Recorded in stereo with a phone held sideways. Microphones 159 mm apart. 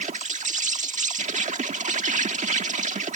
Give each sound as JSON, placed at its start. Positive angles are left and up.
{"t": 0.0, "sound": "an insect", "side_deg": -50}